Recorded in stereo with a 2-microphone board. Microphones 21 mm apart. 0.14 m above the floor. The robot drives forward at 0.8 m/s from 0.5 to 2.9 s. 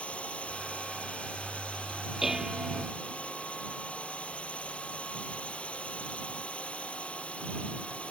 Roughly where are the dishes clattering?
Centre.